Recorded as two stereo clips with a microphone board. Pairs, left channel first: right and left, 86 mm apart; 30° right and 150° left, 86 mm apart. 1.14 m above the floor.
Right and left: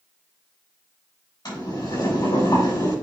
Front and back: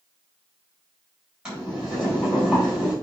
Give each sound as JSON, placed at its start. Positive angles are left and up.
{"t": 1.4, "sound": "boiling", "azimuth_deg": -130, "distance_m": 4.5}